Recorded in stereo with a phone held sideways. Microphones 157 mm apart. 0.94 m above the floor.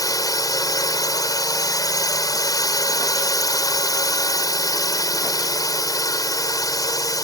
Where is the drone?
25° left (ahead or behind).